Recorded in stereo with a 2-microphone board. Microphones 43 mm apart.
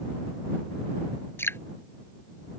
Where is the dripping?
70° left (ahead or behind).